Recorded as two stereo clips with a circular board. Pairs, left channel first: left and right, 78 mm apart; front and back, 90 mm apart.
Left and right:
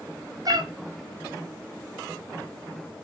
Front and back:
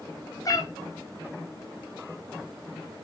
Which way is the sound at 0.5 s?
50° right.